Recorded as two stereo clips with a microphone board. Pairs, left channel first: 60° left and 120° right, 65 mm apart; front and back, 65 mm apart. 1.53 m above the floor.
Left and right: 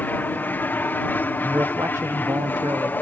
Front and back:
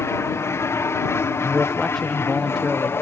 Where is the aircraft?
10° left; by 3.0 s 20° left.